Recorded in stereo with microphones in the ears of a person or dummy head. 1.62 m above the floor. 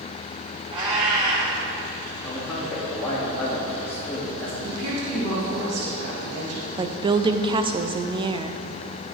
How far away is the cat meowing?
About 2.5 m.